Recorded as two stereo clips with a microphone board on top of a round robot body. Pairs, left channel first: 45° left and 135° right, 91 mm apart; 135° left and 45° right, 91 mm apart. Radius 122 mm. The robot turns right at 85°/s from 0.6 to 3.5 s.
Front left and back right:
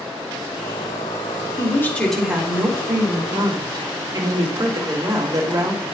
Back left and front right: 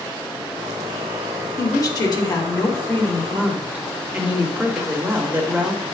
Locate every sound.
1.6 s a woman speaking: 85° left, 1.9 m; by 5.8 s 115° right, 1.9 m